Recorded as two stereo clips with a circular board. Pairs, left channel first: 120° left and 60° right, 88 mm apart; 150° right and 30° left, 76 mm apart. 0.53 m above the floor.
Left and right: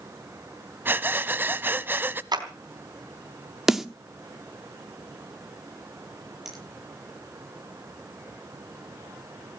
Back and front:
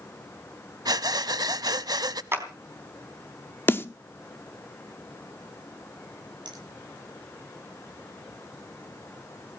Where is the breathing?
5° left, 0.8 m.